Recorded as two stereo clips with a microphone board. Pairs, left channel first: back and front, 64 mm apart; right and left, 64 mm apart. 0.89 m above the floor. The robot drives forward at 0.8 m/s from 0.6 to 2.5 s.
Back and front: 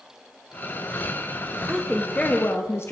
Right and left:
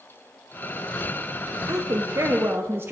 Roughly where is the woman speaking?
Ahead left.